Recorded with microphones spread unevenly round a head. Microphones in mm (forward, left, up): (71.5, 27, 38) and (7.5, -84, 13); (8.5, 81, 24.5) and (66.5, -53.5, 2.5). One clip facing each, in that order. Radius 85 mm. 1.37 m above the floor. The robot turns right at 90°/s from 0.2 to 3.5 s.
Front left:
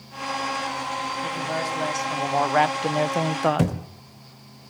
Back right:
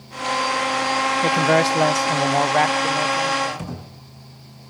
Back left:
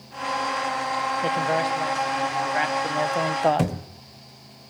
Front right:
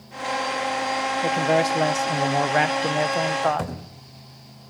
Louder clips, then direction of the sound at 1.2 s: Back right 13 dB, front right 4 dB; 155° right.